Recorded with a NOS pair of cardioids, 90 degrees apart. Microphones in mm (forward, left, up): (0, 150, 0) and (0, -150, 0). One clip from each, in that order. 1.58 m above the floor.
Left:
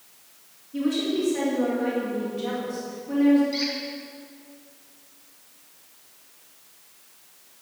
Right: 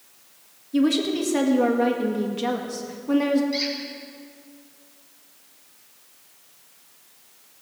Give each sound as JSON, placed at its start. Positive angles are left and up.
{"t": 0.7, "sound": "a woman speaking", "azimuth_deg": -65, "distance_m": 2.0}
{"t": 3.5, "sound": "a squeak", "azimuth_deg": -10, "distance_m": 5.0}